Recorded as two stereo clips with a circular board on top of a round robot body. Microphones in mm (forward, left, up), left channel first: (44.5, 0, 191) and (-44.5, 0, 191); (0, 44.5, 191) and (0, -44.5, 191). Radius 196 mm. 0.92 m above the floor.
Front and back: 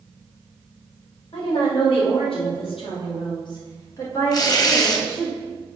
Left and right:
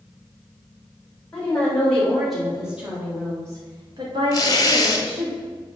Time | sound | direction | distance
1.3 | a woman speaking | 15° left | 3.5 m
4.3 | tearing paper | 45° left | 1.2 m